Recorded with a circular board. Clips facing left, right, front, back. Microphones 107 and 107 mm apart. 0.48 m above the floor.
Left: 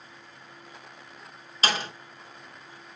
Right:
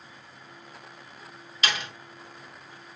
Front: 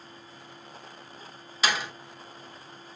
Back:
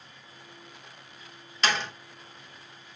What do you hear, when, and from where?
1.6 s a door slam: 80° left, 1.0 m